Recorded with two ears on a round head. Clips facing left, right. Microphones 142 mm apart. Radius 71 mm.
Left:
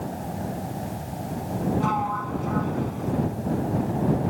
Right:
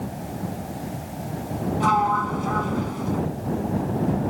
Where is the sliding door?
60° right (ahead or behind).